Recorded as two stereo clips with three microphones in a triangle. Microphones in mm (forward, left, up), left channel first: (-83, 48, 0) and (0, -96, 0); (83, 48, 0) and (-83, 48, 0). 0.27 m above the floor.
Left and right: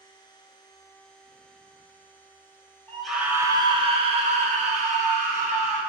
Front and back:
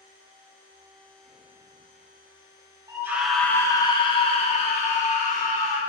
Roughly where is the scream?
Behind.